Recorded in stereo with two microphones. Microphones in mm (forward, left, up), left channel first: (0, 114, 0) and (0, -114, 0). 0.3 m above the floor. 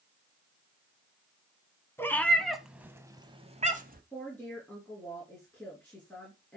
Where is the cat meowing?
10° left (ahead or behind), 1.4 m; by 4.0 s 40° right (ahead or behind), 1.0 m.